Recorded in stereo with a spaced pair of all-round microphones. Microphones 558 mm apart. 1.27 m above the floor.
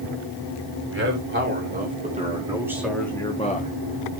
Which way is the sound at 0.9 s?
20° right (ahead or behind).